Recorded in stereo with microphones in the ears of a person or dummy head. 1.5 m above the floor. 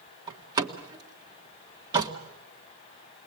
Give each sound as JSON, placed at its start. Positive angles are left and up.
{"t": 0.3, "sound": "a door slam", "side_deg": -20, "distance_m": 1.7}